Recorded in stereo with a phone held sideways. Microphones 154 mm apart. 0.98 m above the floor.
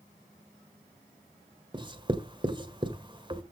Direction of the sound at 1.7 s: 30° right (ahead or behind).